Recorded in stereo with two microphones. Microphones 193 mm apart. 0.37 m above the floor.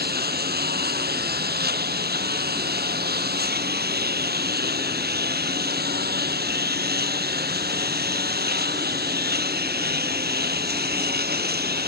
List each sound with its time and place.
0.0 s a lawn mower: 55° right (ahead or behind)